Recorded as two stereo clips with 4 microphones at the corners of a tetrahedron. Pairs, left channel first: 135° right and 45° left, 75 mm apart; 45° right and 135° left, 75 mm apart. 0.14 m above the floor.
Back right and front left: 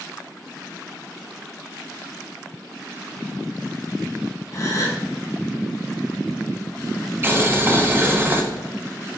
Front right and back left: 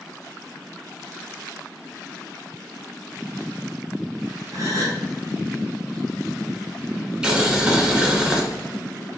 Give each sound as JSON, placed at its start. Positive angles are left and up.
{"t": 4.5, "sound": "a gasp", "azimuth_deg": 180, "distance_m": 1.8}
{"t": 7.2, "sound": "boiling", "azimuth_deg": 65, "distance_m": 1.1}